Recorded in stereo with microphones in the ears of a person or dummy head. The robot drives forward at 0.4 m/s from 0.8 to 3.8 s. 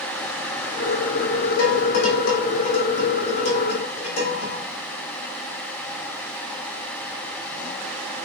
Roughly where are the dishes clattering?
Left.